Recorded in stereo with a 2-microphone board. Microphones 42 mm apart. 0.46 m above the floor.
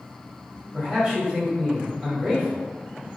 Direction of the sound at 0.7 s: 15° right (ahead or behind).